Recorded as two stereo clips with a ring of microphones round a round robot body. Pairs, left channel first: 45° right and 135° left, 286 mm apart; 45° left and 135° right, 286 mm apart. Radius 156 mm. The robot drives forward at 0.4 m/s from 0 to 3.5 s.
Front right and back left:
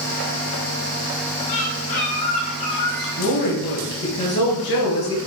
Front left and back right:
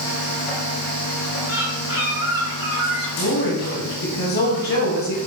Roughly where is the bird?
Ahead right.